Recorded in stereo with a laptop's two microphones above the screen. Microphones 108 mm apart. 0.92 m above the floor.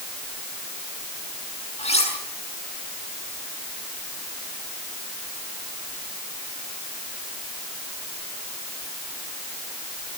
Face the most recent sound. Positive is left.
turn(degrees=80)